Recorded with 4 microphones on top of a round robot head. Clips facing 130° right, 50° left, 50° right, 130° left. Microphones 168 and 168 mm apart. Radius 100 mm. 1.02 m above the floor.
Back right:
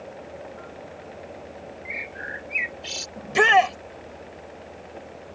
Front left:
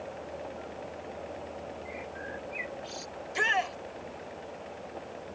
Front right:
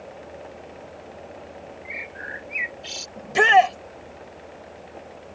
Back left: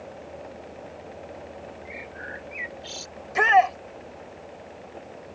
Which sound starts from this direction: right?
A shout, at 3.2 s.